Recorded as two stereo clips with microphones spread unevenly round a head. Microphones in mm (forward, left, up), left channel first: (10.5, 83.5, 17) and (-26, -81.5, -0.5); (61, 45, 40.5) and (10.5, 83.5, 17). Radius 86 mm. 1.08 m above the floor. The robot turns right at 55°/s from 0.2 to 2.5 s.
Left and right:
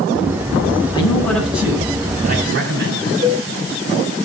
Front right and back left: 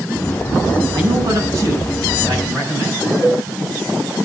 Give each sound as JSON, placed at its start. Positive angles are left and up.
{"t": 0.9, "sound": "a man speaking", "azimuth_deg": 140, "distance_m": 7.5}
{"t": 3.2, "sound": "a cowbell", "azimuth_deg": -75, "distance_m": 2.5}